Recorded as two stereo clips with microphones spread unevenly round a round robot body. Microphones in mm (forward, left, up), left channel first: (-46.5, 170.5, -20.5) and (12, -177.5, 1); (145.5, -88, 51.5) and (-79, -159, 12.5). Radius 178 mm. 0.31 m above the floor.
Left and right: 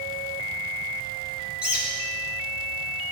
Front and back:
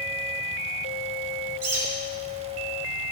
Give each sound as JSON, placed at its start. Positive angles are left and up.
{"t": 1.6, "sound": "a bird", "azimuth_deg": -165, "distance_m": 4.5}